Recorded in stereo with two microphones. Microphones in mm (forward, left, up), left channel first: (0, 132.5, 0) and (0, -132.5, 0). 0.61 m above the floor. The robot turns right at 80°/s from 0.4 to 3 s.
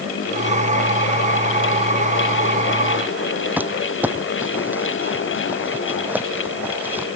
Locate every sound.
3.6 s crumpling: 5° right (ahead or behind)